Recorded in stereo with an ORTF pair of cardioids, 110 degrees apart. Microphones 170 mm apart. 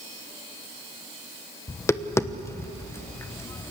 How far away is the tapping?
About 1.2 m.